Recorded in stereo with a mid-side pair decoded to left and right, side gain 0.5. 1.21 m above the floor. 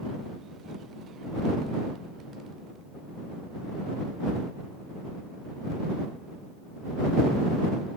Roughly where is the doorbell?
I don't hear a doorbell.